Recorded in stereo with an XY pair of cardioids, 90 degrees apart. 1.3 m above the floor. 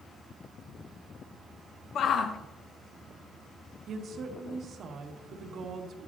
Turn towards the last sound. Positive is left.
turn(degrees=-65)